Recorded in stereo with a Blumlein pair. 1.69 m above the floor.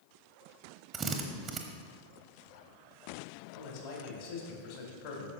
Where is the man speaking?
50° left, 2.5 m.